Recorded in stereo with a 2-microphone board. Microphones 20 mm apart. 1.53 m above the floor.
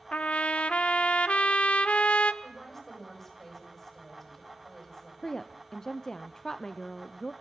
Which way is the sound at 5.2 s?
25° left (ahead or behind).